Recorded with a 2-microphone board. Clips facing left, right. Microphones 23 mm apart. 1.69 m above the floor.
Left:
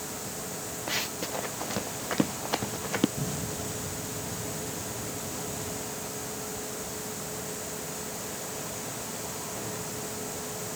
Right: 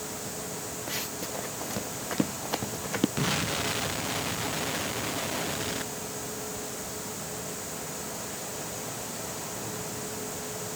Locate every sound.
0.9 s running footsteps: 20° left (ahead or behind); by 3.1 s centre (ahead or behind)
3.2 s an explosion: 75° right (ahead or behind)